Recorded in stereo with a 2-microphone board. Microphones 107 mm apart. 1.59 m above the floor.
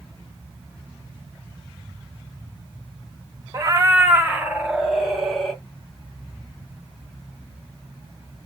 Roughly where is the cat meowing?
Right.